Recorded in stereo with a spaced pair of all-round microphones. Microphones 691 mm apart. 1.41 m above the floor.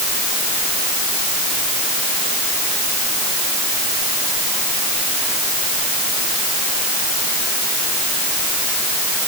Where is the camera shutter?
No camera shutter in this recording.